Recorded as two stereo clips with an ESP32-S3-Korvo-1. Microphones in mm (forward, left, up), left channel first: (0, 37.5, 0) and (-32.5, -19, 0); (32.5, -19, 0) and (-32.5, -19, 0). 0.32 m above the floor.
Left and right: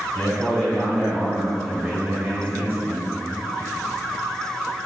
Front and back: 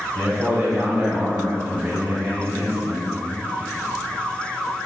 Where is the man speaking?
125° left, 1.6 m; by 3.1 s 145° right, 1.7 m.